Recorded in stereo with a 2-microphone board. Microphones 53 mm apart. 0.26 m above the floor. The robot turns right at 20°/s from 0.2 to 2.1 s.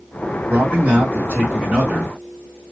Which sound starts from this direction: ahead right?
A man speaking, at 0.5 s.